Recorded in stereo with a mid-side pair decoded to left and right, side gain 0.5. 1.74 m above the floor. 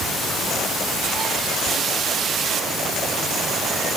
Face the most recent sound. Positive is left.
No sound to turn to.